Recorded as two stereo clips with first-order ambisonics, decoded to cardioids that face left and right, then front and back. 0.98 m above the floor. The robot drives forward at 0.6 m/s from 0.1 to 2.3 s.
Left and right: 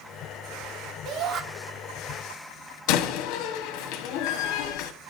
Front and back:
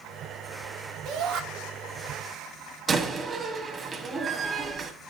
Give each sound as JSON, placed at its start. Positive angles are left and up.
{"t": 1.1, "sound": "a shout", "azimuth_deg": -130, "distance_m": 2.5}
{"t": 2.9, "sound": "a door slam", "azimuth_deg": 110, "distance_m": 1.4}